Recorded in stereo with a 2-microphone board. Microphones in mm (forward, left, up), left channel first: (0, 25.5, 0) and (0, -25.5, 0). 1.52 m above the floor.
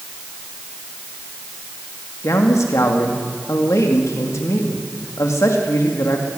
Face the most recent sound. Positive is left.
turn(degrees=85)